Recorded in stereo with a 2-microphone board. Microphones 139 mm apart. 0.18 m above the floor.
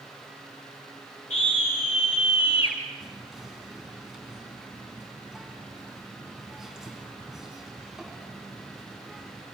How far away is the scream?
About 2 m.